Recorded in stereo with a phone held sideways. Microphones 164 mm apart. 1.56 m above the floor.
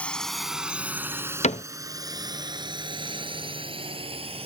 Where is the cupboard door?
45° left (ahead or behind).